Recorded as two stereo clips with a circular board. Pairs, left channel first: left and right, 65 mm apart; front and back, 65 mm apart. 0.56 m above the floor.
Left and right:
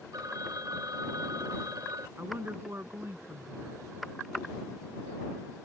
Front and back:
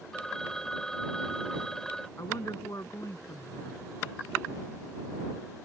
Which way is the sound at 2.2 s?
40° right.